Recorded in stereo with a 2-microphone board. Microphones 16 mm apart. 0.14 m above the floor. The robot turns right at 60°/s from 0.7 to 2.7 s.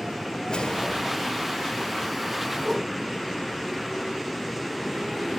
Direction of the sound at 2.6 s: 15° right (ahead or behind).